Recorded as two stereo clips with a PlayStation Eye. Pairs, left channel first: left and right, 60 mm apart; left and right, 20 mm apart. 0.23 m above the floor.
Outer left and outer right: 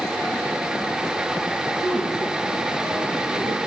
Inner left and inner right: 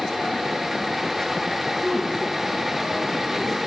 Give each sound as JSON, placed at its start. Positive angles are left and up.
{"t": 1.8, "sound": "a woman speaking", "side_deg": -80, "distance_m": 5.5}